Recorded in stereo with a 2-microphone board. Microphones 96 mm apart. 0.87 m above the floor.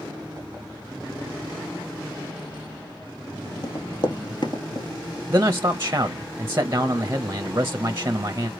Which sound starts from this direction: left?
Running footsteps, at 3.6 s.